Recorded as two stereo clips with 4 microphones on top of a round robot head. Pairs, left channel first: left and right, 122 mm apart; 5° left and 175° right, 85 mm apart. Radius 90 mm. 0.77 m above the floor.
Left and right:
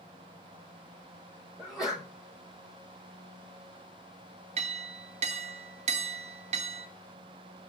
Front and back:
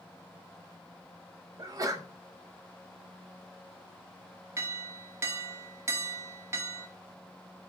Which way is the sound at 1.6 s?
175° right.